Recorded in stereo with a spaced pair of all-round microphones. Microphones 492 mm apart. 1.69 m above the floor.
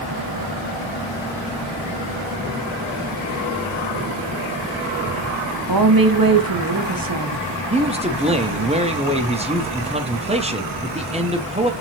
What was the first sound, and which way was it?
A woman speaking, 45° right (ahead or behind).